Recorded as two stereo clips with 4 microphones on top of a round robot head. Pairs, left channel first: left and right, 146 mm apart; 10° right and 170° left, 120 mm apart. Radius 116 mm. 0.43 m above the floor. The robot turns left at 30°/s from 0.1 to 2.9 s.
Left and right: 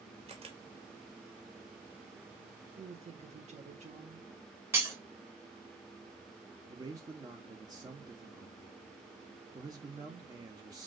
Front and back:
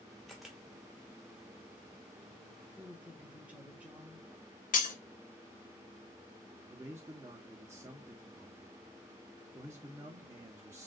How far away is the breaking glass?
About 1.0 m.